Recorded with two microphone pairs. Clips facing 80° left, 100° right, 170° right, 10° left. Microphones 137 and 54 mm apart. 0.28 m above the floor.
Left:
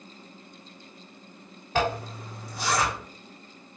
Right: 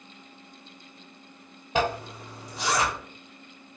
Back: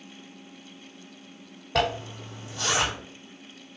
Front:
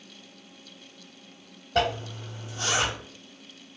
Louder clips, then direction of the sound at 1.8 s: Even, even; 170° right.